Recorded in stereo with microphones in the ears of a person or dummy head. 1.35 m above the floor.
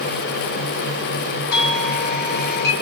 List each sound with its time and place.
1.5 s a doorbell: 60° left (ahead or behind), 2.5 m